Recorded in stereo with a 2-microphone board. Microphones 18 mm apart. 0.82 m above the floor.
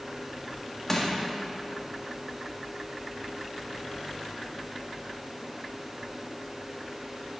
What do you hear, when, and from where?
0.9 s crushing: 20° left (ahead or behind), 1.6 m